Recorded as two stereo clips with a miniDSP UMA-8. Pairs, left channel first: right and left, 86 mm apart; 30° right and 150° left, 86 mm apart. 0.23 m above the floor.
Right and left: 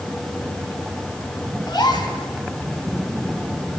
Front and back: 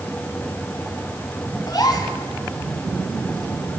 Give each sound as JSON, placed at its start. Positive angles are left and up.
{"t": 1.7, "sound": "a gasp", "azimuth_deg": -65, "distance_m": 1.9}